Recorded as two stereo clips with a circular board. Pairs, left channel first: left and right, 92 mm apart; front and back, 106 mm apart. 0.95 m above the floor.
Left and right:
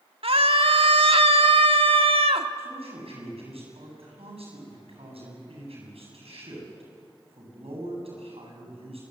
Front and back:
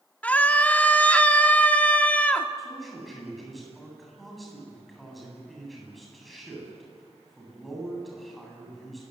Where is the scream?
80° right, 1.8 m.